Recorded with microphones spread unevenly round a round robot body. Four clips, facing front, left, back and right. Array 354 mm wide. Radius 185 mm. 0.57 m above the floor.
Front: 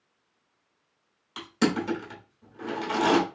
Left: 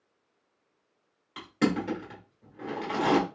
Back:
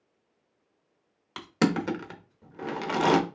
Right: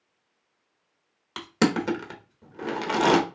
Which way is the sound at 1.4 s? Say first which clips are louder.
Right 3 dB, even; 105° right.